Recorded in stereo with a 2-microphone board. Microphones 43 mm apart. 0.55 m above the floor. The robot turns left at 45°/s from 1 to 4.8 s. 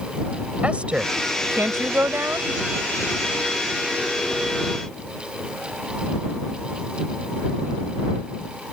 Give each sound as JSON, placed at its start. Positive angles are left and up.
{"t": 0.6, "sound": "a woman speaking", "azimuth_deg": -30}